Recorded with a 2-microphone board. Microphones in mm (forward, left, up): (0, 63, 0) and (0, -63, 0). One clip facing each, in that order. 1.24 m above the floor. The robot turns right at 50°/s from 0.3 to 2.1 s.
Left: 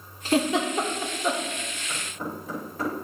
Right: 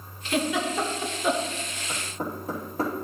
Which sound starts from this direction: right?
Knocking, at 1.9 s.